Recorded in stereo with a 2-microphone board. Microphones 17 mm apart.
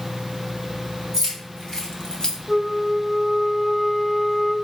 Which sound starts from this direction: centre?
A flute, at 2.5 s.